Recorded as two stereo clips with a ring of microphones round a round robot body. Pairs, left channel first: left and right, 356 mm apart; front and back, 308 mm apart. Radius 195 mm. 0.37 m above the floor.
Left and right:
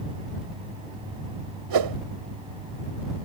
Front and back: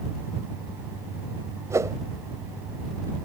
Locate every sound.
1.7 s a whoosh: 100° right